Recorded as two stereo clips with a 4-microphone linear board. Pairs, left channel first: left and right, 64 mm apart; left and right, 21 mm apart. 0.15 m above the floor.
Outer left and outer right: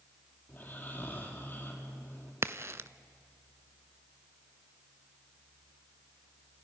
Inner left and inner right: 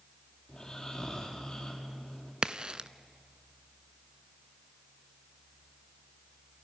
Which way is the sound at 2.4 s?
45° right (ahead or behind).